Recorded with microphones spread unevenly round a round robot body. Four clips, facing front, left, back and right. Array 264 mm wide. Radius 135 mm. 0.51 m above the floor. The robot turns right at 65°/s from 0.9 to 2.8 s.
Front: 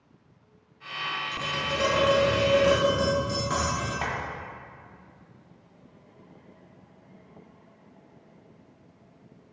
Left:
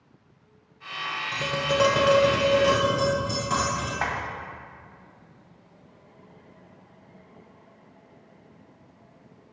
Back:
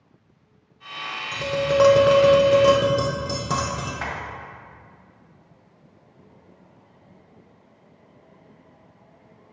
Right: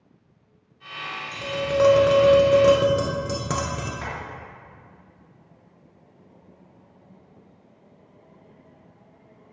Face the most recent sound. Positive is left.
turn(degrees=85)